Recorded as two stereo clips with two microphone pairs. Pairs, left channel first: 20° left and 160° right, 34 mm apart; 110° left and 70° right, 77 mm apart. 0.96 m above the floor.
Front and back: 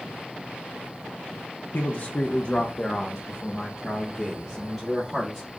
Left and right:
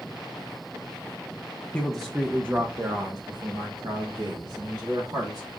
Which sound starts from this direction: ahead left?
A man speaking, at 1.7 s.